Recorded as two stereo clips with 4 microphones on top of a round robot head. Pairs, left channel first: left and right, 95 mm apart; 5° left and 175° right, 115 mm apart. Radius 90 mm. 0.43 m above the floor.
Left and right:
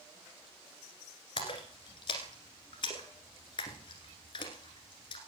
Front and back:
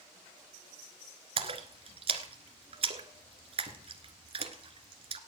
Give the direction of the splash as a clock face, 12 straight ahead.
7 o'clock.